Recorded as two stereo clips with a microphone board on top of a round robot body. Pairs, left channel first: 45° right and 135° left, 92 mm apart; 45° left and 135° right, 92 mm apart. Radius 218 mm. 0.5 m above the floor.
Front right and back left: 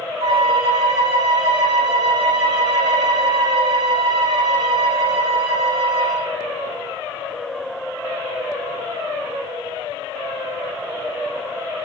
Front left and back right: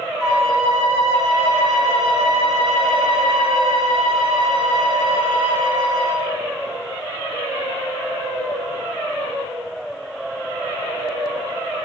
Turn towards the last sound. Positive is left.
turn(degrees=140)